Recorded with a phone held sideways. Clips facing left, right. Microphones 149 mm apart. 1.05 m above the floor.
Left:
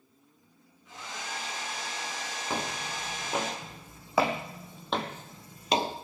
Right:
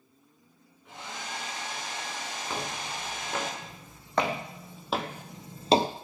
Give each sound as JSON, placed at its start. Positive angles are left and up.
{"t": 0.8, "sound": "a hair dryer", "side_deg": -60, "distance_m": 8.5}
{"t": 2.5, "sound": "footsteps", "side_deg": 15, "distance_m": 5.0}